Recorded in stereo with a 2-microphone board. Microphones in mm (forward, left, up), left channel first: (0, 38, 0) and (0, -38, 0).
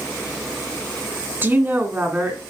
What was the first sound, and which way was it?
A woman speaking, 25° right (ahead or behind).